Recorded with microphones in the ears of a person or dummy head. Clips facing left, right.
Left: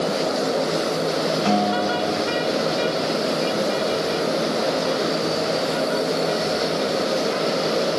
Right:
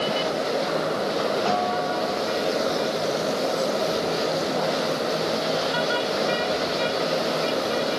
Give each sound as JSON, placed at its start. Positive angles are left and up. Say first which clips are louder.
{"t": 1.4, "sound": "a guitar", "louder": "left 4 dB", "side_deg": 50, "distance_m": 6.5}